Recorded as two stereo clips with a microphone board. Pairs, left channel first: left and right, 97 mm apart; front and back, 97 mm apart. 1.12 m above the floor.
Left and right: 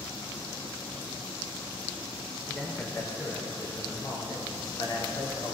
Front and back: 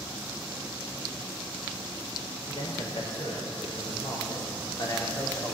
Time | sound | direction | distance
2.5 | a man speaking | 15° left | 4.5 m